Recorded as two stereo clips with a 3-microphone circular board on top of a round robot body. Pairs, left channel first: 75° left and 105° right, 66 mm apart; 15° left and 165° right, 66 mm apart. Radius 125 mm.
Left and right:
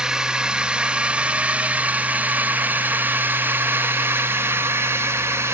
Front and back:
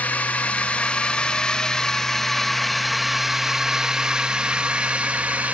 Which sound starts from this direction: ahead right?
A drone, at 0.0 s.